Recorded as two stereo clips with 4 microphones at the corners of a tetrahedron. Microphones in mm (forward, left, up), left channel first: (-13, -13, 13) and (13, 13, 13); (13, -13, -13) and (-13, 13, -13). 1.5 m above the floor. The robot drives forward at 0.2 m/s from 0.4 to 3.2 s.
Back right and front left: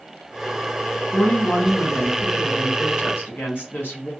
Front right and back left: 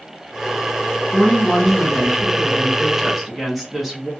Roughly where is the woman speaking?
Behind right.